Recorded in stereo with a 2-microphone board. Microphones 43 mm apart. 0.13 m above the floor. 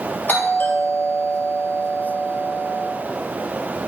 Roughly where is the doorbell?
Left.